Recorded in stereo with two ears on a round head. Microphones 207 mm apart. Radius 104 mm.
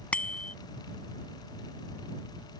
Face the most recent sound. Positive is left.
turn(degrees=5)  # may be behind; listen again after turning